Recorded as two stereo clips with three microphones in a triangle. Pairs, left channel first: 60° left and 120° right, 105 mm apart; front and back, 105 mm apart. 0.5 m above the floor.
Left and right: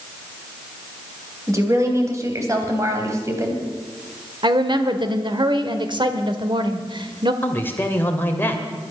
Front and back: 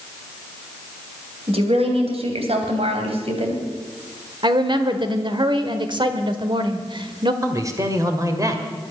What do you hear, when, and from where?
1.5 s a woman speaking: 175° right, 3 m
4.4 s a woman speaking: 150° right, 1.3 m
7.4 s a man speaking: 130° left, 1.9 m